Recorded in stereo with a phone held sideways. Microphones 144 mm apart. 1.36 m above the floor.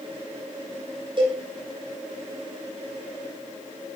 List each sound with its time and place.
1.2 s a cowbell: 35° right (ahead or behind), 7.5 m